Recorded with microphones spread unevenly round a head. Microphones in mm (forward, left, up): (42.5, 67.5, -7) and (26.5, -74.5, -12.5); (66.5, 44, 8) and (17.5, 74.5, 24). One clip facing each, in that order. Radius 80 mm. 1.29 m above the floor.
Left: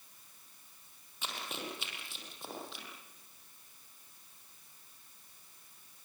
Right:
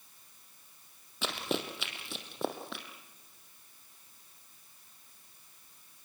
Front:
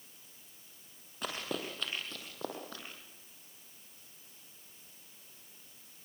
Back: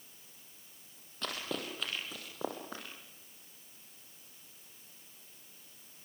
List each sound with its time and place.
1.2 s running footsteps: 125° right, 3 m; by 2.9 s 140° right, 3.5 m